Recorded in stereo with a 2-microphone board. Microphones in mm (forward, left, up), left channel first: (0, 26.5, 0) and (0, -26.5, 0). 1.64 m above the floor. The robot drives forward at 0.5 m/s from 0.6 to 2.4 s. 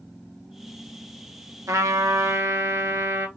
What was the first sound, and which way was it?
A trumpet, 80° right.